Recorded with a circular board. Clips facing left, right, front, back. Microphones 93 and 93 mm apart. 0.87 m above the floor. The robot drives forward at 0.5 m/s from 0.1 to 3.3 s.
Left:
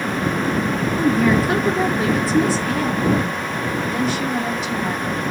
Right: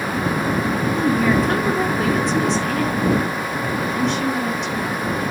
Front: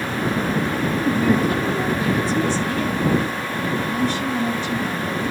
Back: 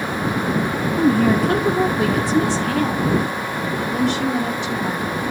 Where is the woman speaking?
175° left, 1.9 m.